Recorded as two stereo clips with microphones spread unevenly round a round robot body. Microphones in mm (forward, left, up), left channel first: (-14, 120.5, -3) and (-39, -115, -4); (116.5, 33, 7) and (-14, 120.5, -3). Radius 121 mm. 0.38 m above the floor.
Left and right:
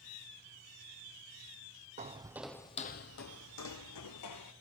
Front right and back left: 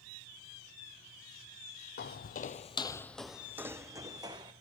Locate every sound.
2.0 s footsteps: 35° right, 0.9 m; by 4.5 s 80° left, 1.8 m